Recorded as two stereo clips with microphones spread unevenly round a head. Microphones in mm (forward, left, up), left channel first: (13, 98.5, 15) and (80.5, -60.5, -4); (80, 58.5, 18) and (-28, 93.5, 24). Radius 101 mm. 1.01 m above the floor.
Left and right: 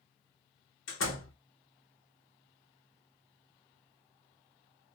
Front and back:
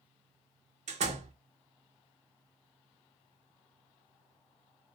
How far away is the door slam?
About 1.0 m.